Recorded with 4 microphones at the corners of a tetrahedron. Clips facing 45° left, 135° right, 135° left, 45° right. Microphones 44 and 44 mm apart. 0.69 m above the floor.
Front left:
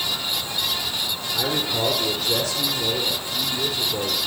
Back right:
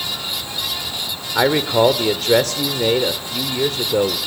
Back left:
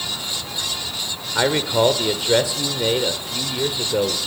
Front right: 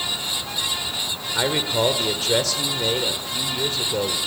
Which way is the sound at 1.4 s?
155° right.